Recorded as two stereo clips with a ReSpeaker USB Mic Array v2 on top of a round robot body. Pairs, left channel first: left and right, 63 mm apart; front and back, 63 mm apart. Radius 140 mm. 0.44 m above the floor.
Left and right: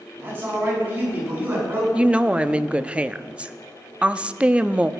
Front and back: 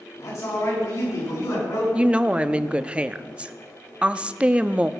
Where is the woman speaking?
135° right, 0.8 m.